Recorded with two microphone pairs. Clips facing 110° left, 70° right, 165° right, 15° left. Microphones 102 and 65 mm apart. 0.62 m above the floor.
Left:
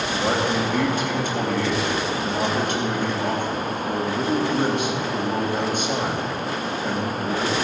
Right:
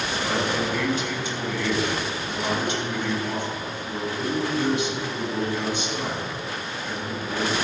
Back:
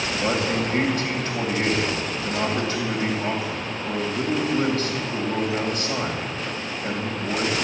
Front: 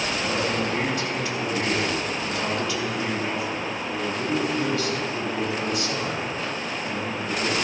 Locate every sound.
0.2 s a man speaking: 150° left, 3 m